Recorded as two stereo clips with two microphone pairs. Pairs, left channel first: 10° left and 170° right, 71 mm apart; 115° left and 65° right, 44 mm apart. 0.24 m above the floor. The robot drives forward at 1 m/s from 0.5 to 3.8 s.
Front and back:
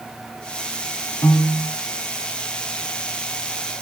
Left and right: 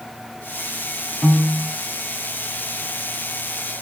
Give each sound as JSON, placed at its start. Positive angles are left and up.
{"t": 1.2, "sound": "a piano", "azimuth_deg": 20, "distance_m": 1.1}